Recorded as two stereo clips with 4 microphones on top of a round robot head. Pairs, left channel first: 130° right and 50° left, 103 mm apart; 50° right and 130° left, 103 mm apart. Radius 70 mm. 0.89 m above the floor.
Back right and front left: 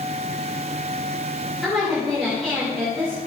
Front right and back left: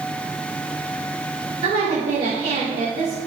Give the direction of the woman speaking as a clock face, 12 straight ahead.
7 o'clock.